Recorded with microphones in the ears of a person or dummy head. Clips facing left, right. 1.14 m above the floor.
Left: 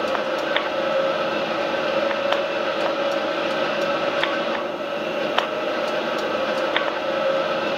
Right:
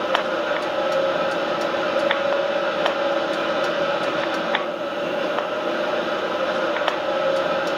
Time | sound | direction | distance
0.0 | a fan | 5° left (ahead or behind) | 1.6 m